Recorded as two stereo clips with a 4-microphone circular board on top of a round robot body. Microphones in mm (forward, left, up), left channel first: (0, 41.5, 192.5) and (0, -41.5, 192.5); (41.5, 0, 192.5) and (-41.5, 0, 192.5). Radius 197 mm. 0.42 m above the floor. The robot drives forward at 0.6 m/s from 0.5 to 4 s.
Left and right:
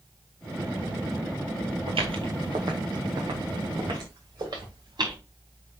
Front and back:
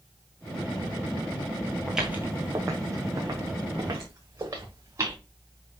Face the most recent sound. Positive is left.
turn(degrees=-130)